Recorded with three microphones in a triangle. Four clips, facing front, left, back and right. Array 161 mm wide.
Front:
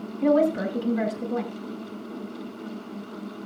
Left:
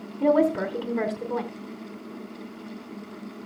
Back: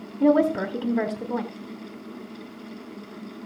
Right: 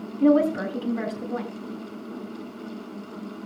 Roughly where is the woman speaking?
Behind left.